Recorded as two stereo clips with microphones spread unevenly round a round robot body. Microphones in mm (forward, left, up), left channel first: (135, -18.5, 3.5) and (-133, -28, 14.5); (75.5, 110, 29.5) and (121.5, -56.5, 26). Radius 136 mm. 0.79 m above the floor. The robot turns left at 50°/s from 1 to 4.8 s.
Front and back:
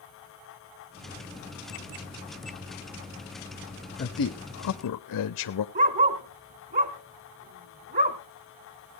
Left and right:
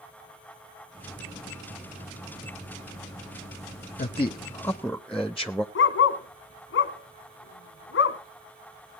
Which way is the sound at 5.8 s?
120° left.